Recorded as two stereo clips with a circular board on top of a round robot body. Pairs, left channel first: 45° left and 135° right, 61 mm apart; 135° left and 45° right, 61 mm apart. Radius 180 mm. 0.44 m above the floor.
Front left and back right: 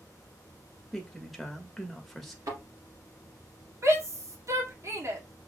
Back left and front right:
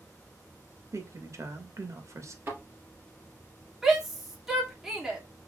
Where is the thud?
105° right, 2.5 m.